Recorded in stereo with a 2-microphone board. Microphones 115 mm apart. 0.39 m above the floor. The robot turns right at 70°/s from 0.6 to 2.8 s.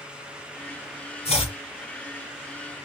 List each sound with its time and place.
1.2 s chopping: 60° left (ahead or behind), 2.5 m; by 1.6 s 45° left (ahead or behind), 2.5 m